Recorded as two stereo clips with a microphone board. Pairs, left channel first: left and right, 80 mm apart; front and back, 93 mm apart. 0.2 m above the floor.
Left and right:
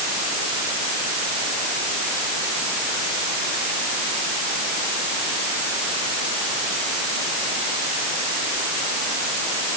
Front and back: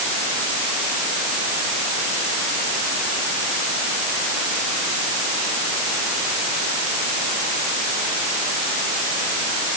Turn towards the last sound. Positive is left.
No sound to turn to.